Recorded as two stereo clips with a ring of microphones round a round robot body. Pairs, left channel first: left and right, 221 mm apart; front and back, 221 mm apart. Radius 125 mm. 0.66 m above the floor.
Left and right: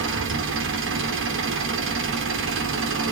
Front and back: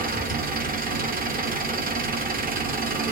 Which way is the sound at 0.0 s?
125° right.